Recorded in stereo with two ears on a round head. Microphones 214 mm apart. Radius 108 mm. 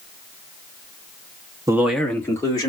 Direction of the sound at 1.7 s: 15° right (ahead or behind).